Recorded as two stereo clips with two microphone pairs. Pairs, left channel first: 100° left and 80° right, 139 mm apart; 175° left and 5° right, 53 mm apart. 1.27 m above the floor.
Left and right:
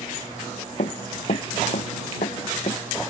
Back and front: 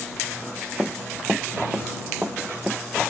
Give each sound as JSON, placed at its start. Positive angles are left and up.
{"t": 0.8, "sound": "running footsteps", "azimuth_deg": 65}